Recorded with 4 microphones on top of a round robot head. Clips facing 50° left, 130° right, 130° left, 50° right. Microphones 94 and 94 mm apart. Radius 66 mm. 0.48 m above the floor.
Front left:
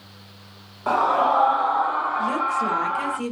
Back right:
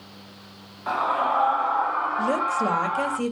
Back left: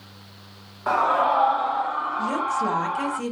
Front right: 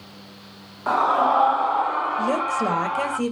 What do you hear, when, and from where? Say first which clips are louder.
0.9 s a scream: front left 4 dB, front right 1 dB; 30° left, 1.0 m; by 3.2 s 45° right, 3 m
2.2 s a woman speaking: even, even; 80° right, 2.5 m